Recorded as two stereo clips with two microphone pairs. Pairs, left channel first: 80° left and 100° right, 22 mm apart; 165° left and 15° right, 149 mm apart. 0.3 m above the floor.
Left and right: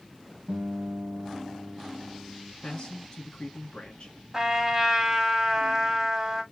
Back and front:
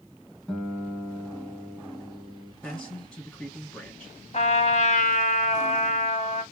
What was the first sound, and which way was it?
A guitar, 110° right.